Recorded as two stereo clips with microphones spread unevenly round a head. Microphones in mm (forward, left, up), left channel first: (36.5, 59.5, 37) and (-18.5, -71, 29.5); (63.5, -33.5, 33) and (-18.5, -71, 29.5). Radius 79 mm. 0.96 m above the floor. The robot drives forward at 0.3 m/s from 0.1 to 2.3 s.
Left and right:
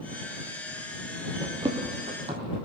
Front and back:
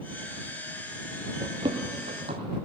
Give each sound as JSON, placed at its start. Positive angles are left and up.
{"t": 1.4, "sound": "running footsteps", "azimuth_deg": -175, "distance_m": 1.0}